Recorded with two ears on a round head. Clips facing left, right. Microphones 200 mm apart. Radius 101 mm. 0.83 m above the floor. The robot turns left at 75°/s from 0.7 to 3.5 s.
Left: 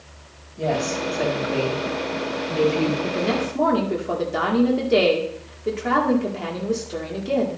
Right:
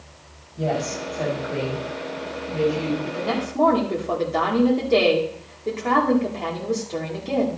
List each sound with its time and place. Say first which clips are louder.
0.6 s a woman speaking: left 2 dB; 175° right, 5 m; by 2.9 s 20° left, 5 m
3.0 s a woman speaking: left 3 dB; 40° left, 2 m; by 7.6 s 10° left, 2 m